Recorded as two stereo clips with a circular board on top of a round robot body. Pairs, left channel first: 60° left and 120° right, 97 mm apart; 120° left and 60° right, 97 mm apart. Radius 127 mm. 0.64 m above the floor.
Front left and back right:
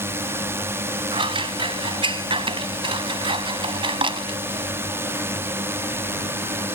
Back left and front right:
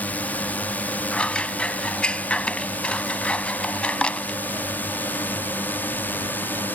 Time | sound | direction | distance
0.0 | a drone | 170° right | ?
1.1 | scissors | 160° right | ?